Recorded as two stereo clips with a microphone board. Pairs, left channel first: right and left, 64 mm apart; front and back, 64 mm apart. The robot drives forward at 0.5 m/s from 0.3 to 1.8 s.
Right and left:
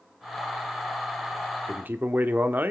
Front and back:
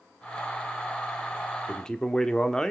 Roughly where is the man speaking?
Ahead left.